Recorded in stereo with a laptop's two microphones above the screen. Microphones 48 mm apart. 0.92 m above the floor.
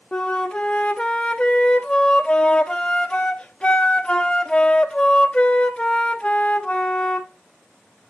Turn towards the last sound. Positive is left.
turn(degrees=20)  # may be behind; listen again after turning